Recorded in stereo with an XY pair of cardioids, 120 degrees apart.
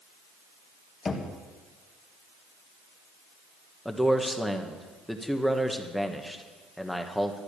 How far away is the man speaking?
About 1.4 m.